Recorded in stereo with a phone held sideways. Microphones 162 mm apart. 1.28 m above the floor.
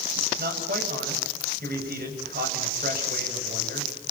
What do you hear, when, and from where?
0.4 s a man speaking: 85° right, 7.5 m